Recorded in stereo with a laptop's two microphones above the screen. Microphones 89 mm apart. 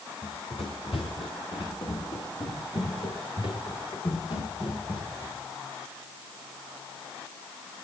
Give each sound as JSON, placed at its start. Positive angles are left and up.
{"t": 0.2, "sound": "running footsteps", "side_deg": 75, "distance_m": 4.0}